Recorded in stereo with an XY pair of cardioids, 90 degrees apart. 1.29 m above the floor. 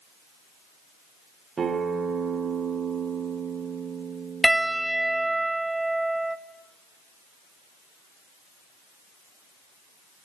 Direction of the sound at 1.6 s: 45° right.